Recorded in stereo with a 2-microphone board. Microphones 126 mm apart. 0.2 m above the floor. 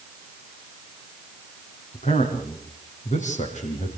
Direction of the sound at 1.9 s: 75° left (ahead or behind).